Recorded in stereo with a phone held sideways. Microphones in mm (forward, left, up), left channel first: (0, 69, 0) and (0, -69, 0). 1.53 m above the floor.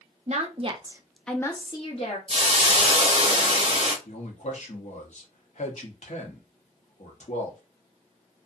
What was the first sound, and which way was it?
A woman speaking, 60° right (ahead or behind).